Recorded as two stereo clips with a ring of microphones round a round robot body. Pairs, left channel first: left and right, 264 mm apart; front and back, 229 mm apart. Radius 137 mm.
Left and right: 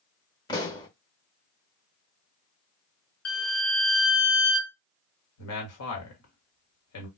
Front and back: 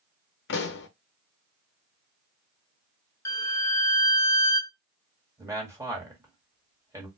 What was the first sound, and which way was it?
A pop, 20° left.